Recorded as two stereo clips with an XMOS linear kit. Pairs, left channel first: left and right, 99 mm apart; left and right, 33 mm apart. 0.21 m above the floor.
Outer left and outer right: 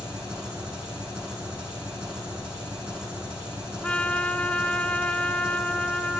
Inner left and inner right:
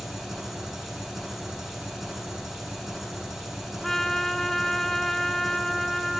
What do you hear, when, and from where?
0.0 s an engine running: 5° right (ahead or behind), 8 m
3.8 s a trumpet: 15° left (ahead or behind), 0.7 m